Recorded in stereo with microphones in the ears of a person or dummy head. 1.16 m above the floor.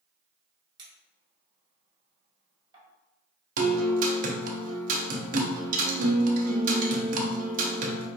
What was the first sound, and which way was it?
A clink, 20° right (ahead or behind).